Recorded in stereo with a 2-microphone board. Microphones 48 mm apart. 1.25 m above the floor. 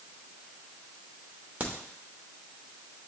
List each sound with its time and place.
1.6 s a crack: 35° right (ahead or behind), 0.9 m